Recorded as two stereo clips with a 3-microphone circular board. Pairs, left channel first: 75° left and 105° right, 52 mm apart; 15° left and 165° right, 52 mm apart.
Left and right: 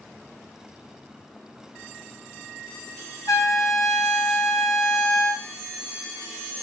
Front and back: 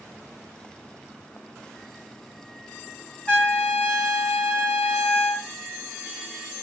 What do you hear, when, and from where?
3.3 s a trumpet: 85° left, 3 m